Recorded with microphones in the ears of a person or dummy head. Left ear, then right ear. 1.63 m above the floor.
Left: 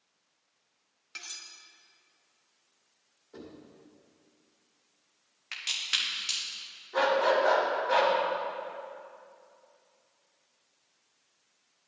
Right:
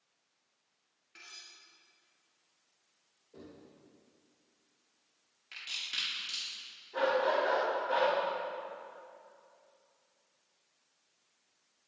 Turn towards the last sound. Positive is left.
turn(degrees=25)  # may be behind; listen again after turning